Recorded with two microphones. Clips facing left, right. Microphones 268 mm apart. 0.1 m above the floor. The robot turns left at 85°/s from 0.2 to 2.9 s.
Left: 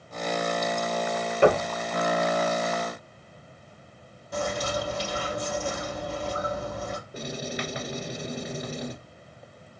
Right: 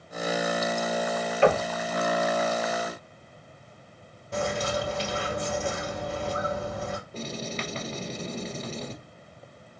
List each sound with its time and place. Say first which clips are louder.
1.4 s knocking: left 2 dB; 50° left (ahead or behind), 1.7 m
4.3 s a bird: right 1 dB; 30° right (ahead or behind), 2 m
7.1 s writing: left 1 dB; 10° left (ahead or behind), 1.2 m